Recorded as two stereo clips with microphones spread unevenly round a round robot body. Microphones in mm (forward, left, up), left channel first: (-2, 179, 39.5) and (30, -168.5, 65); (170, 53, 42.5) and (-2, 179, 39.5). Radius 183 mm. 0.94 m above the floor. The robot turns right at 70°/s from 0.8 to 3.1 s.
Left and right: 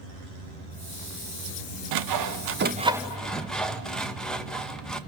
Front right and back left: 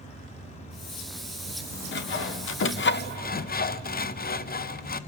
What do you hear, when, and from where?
1.9 s sawing: 75° right, 0.7 m; by 5.0 s 10° left, 0.7 m